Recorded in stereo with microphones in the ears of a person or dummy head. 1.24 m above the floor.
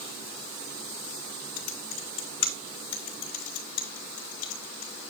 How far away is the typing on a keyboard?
About 2.5 m.